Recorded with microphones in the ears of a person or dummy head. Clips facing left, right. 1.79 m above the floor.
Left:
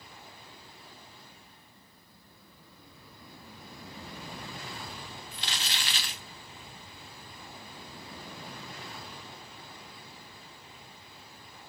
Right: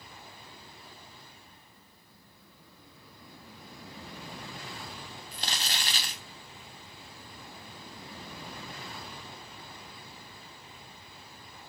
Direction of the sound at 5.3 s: 40° right (ahead or behind).